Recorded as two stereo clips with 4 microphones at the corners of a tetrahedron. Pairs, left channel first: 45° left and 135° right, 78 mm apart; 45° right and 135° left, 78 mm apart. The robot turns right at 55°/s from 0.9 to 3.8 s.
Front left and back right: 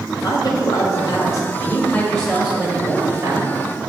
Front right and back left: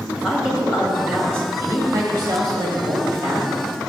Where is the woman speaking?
55° left, 1.6 m; by 3.5 s 160° right, 1.6 m.